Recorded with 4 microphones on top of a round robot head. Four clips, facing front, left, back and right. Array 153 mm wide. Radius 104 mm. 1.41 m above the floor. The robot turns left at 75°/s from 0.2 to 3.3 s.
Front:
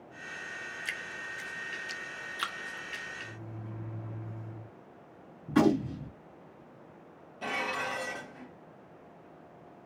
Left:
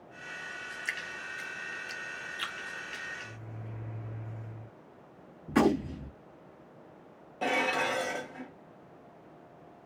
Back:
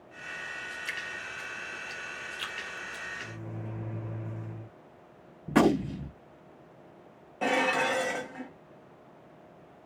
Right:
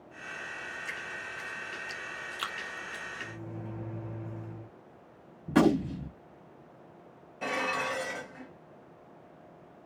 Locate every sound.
0.8 s dripping: 70° left, 0.7 m; by 3.0 s 95° right, 0.7 m
3.2 s a microwave: 140° right, 1.3 m; by 4.7 s 145° right, 1.3 m
5.5 s a gunshot: 155° right, 1.8 m
7.4 s dishes clattering: 150° left, 1.4 m